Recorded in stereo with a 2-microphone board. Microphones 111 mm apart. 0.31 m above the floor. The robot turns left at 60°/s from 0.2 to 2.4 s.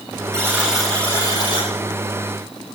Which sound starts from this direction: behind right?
A buzzer, at 0.3 s.